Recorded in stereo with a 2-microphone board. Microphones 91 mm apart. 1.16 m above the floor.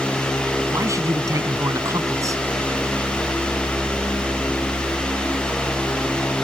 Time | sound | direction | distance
0.7 | a man speaking | 35° right (ahead or behind) | ?